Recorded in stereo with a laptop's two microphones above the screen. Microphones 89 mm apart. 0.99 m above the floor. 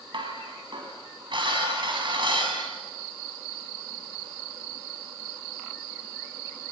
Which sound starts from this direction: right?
Dishes clattering, at 0.1 s.